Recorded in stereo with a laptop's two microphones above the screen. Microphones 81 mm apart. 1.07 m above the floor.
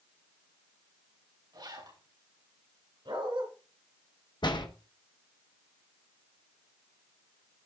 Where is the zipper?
70° right (ahead or behind), 6 m.